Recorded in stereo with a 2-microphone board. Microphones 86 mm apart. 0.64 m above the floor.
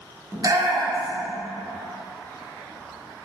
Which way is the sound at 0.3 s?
45° right (ahead or behind).